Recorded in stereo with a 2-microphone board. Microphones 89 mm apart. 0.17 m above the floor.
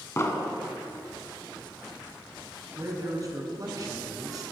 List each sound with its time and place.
0.2 s an explosion: 35° left (ahead or behind), 0.7 m
2.8 s a man speaking: 45° right (ahead or behind), 1.4 m